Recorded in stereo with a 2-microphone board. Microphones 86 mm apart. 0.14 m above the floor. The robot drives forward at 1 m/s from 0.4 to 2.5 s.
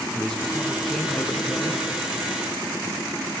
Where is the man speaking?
5° left (ahead or behind), 1.0 m.